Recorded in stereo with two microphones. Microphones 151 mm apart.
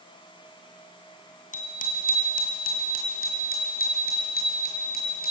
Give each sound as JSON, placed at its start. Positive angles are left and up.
{"t": 1.5, "sound": "a bicycle bell", "side_deg": 60, "distance_m": 2.0}